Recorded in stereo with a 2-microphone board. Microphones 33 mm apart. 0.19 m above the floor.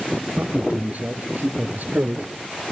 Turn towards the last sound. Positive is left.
turn(degrees=-65)  # may be behind; listen again after turning